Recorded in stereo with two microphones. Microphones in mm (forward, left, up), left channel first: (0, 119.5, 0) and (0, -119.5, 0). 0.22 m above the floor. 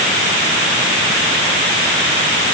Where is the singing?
No singing in this recording.